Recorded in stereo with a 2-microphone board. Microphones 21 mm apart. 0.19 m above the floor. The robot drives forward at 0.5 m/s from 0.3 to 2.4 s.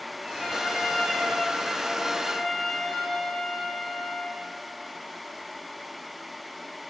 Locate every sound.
0.4 s a trumpet: 10° left (ahead or behind), 9.5 m